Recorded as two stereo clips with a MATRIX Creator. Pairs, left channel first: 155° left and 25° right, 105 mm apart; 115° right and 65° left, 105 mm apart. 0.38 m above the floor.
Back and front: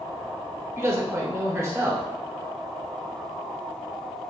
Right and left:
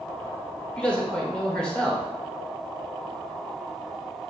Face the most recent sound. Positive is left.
turn(degrees=-45)